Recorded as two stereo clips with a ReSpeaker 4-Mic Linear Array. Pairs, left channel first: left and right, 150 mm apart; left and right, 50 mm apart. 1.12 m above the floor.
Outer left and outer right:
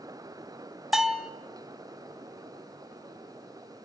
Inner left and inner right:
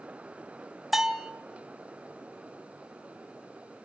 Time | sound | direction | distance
0.9 | a bell | 5° right (ahead or behind) | 1.0 m